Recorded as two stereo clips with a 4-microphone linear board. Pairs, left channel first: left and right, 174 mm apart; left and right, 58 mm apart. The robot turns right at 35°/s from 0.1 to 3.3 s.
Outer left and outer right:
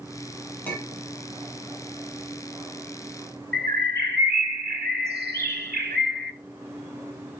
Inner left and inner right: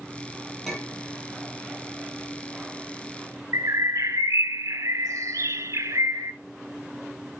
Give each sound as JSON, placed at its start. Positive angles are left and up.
{"t": 0.7, "sound": "a clink", "side_deg": 10, "distance_m": 4.5}
{"t": 3.5, "sound": "a bird", "side_deg": -80, "distance_m": 0.7}